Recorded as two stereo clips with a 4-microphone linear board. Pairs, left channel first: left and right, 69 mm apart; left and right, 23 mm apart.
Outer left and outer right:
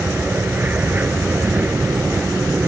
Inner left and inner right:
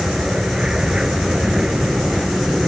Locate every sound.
0.0 s an aircraft: 25° right (ahead or behind)